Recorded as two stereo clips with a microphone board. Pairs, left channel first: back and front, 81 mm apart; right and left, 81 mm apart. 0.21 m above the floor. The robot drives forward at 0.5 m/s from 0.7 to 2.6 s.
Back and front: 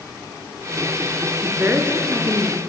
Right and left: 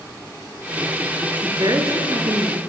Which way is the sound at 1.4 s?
60° left.